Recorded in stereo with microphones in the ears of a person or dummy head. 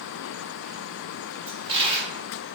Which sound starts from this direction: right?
A dropped coin, at 1.5 s.